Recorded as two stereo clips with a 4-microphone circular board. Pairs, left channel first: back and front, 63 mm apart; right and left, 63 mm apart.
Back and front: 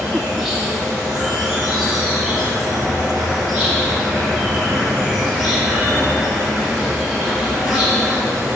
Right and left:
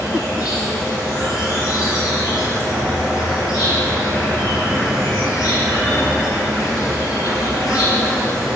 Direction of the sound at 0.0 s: 90° right.